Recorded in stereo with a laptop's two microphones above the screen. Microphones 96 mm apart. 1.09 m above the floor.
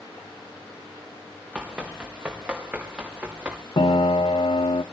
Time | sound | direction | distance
1.6 | running footsteps | 5° right (ahead or behind) | 5 m
3.8 | a piano | 70° left (ahead or behind) | 1.0 m